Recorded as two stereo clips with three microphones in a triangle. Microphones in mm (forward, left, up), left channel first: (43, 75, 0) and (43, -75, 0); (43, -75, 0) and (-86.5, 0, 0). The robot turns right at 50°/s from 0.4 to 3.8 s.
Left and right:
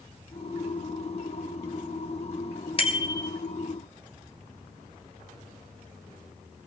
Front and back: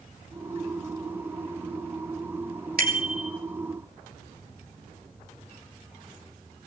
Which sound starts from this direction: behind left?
A bicycle bell, at 2.8 s.